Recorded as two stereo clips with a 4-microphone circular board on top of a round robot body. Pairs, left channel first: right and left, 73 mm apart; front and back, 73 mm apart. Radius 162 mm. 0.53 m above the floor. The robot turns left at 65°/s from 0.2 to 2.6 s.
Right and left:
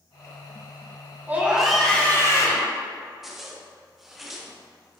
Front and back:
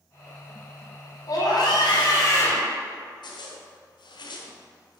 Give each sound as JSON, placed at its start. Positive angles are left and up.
{"t": 1.3, "sound": "a scream", "azimuth_deg": 30, "distance_m": 3.0}
{"t": 3.2, "sound": "a zipper", "azimuth_deg": 5, "distance_m": 1.1}